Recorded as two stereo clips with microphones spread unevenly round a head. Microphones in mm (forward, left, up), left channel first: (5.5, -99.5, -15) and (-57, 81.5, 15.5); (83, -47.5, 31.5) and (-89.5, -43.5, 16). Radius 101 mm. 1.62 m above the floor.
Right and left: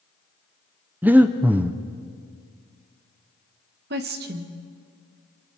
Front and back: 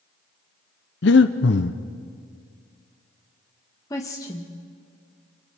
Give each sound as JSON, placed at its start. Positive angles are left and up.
{"t": 1.0, "sound": "breathing", "azimuth_deg": 30, "distance_m": 0.6}
{"t": 3.9, "sound": "a woman speaking", "azimuth_deg": 70, "distance_m": 1.4}